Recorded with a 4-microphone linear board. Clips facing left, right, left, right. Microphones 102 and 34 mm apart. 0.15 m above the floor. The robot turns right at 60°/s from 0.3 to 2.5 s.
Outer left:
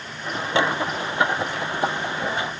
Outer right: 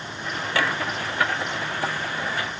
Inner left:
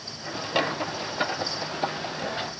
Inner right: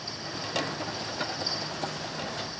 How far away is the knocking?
I don't hear knocking.